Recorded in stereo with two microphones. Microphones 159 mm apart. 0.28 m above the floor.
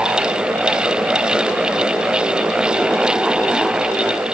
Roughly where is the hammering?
I don't hear hammering.